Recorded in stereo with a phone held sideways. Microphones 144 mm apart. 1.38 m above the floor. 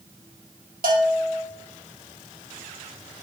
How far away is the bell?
About 2.5 m.